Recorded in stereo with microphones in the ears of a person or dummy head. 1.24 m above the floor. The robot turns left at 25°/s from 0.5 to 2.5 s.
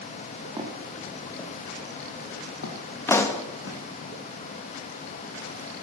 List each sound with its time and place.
0.6 s footsteps: 30° right (ahead or behind), 3 m; by 3.8 s 75° left (ahead or behind), 5 m
3.1 s a pop: 10° left (ahead or behind), 1.1 m